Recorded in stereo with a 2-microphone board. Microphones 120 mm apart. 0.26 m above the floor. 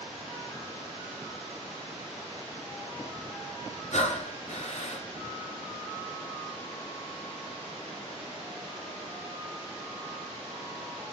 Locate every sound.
3.9 s breathing: 75° left (ahead or behind), 2 m